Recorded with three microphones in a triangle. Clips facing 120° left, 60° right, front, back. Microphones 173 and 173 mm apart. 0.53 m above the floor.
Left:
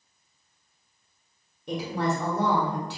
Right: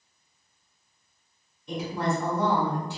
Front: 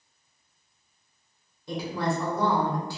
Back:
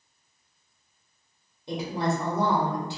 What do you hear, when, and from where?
1.7 s a woman speaking: 115° left, 1.3 m